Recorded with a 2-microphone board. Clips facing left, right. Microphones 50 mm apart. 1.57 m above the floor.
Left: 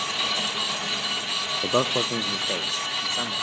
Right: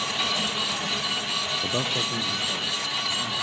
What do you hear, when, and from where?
1.6 s a man speaking: 30° left (ahead or behind), 0.6 m; by 3.3 s 65° left (ahead or behind), 2.5 m